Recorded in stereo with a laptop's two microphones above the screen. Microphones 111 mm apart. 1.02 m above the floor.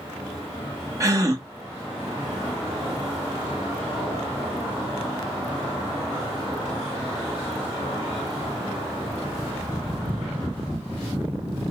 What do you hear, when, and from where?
1.0 s a gasp: 25° right (ahead or behind), 1.4 m